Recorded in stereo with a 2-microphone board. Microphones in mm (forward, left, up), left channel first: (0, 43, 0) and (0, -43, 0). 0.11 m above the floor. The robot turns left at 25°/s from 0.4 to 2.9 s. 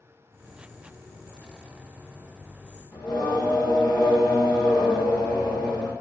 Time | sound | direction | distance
2.9 | singing | 60° left (ahead or behind) | 2.5 m